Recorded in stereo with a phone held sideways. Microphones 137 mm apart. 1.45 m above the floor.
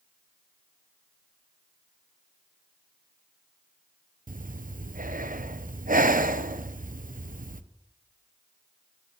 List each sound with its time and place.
4.3 s breathing: 85° right, 0.7 m